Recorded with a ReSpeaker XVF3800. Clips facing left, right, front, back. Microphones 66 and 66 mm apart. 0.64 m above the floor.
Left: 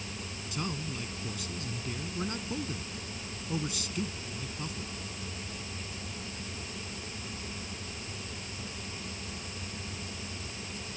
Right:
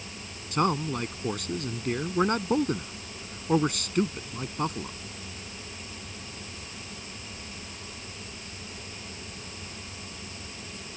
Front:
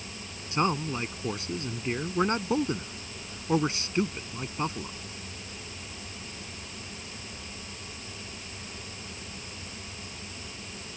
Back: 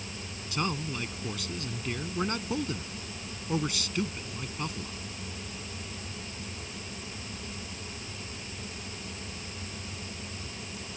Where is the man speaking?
60° right.